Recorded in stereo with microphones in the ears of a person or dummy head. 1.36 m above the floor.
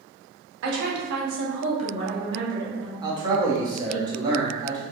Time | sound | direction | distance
0.6 | a woman speaking | 65° right (ahead or behind) | 1.1 m
3.0 | a man speaking | 30° right (ahead or behind) | 0.9 m